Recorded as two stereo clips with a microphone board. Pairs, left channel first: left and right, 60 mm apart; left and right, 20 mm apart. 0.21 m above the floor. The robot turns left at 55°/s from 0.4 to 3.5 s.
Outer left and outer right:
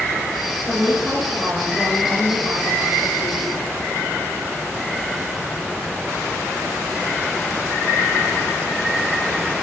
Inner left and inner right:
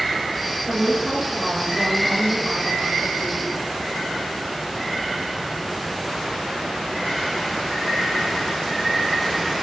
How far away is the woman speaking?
About 4 m.